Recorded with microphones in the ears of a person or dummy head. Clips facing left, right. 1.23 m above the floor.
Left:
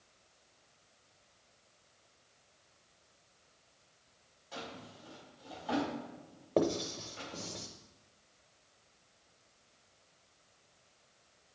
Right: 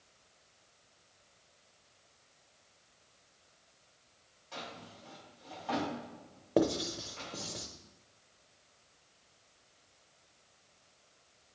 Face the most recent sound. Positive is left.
turn(degrees=-10)  # may be behind; listen again after turning